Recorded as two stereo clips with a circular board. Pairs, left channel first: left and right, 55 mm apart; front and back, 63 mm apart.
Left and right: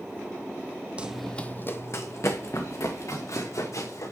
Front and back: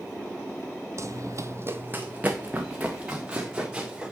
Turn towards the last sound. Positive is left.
turn(degrees=105)